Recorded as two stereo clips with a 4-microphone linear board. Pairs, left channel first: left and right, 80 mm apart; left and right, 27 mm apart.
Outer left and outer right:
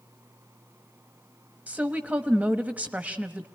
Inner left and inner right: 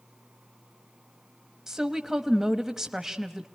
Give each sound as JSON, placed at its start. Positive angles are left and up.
{"t": 1.7, "sound": "a woman speaking", "side_deg": -20, "distance_m": 1.1}